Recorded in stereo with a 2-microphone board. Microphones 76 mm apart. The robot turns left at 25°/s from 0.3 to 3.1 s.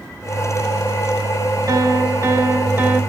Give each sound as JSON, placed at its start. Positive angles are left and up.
{"t": 1.7, "sound": "a piano", "azimuth_deg": -120, "distance_m": 2.0}